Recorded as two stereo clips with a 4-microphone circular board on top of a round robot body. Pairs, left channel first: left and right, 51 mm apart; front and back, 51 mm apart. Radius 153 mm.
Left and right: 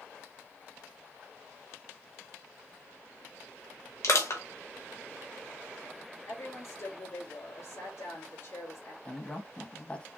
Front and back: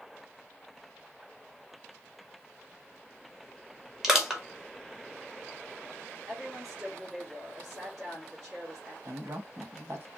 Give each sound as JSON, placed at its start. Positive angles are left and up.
{"t": 4.0, "sound": "crushing", "azimuth_deg": 100, "distance_m": 1.9}
{"t": 6.3, "sound": "a woman speaking", "azimuth_deg": 100, "distance_m": 4.0}
{"t": 9.1, "sound": "a woman speaking", "azimuth_deg": 155, "distance_m": 1.8}